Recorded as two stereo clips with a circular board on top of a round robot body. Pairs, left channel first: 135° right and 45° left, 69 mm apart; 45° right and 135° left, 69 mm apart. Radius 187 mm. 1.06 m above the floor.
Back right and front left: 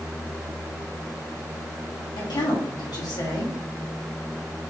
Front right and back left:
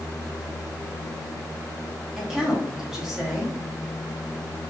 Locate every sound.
2.2 s a woman speaking: 140° right, 3 m